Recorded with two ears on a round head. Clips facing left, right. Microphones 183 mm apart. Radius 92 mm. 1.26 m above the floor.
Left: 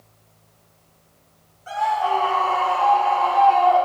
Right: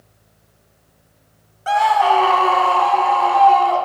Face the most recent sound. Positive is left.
turn(degrees=-55)  # may be behind; listen again after turning